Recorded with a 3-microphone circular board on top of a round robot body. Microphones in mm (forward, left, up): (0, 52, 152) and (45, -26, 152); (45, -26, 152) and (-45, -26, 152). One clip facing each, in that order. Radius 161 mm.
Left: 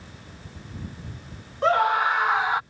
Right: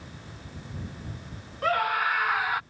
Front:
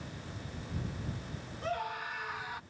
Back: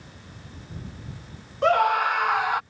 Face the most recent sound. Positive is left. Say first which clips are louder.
# left 5 dB, back 17 dB
turn(degrees=-175)